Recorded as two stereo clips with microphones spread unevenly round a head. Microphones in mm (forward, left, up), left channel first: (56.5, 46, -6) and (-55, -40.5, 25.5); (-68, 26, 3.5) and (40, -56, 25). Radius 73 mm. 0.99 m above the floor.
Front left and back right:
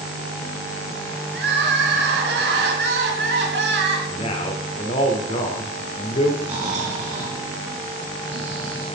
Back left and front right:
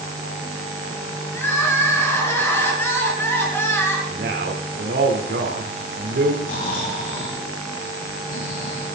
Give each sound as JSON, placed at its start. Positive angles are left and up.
{"t": 1.3, "sound": "crying", "azimuth_deg": -140, "distance_m": 4.5}
{"t": 4.1, "sound": "a man speaking", "azimuth_deg": -15, "distance_m": 4.0}
{"t": 6.4, "sound": "snoring", "azimuth_deg": 170, "distance_m": 8.5}